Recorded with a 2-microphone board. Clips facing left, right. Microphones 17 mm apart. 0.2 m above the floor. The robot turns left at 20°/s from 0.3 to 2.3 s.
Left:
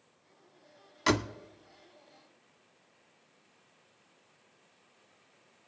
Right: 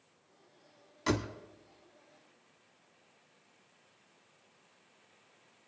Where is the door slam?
40° left (ahead or behind), 0.8 m; by 1.3 s 35° left (ahead or behind), 0.8 m.